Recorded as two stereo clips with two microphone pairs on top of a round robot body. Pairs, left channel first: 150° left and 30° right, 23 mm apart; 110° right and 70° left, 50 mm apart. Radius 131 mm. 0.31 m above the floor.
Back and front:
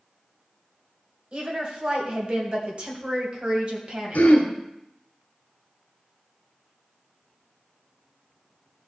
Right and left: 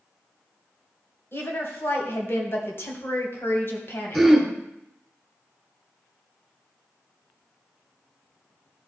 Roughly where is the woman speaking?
Right.